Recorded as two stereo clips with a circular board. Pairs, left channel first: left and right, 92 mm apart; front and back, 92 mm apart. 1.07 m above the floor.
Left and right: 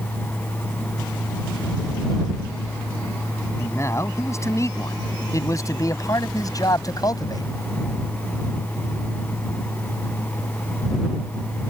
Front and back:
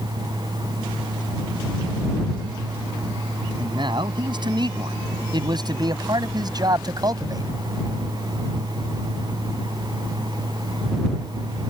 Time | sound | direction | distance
3.6 | a man speaking | 150° left | ?